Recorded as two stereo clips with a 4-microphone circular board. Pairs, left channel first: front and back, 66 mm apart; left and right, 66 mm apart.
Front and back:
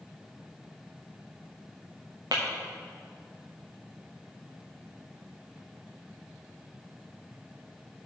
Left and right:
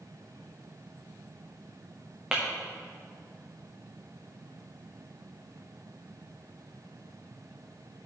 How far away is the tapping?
About 2 m.